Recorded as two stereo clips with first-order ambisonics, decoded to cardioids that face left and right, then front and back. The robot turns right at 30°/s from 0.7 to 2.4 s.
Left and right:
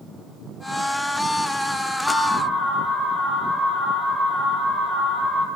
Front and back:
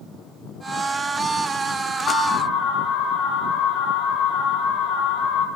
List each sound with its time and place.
2.1 s an alarm: straight ahead, 2 m; by 5.5 s 10° left, 2 m